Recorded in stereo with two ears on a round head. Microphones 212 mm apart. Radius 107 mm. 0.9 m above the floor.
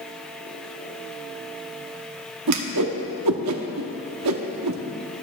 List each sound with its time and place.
2.5 s a whoosh: 85° right, 0.9 m